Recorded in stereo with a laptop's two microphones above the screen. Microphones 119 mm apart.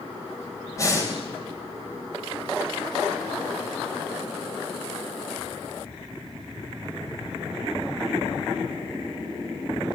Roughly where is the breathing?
Left.